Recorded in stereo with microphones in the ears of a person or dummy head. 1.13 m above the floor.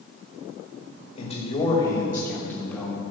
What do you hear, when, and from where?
1.1 s a man speaking: 35° left (ahead or behind), 1.9 m; by 3.0 s centre (ahead or behind), 3 m